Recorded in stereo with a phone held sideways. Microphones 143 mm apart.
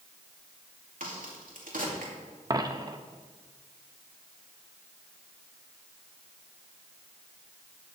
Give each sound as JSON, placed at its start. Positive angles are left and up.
{"t": 1.0, "sound": "a crack", "side_deg": -85, "distance_m": 2.5}
{"t": 2.5, "sound": "a dropped coin", "side_deg": -30, "distance_m": 0.7}